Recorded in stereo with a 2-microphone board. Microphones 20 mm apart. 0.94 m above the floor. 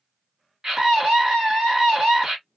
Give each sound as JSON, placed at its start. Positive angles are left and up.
{"t": 0.6, "sound": "a scream", "side_deg": -40, "distance_m": 1.7}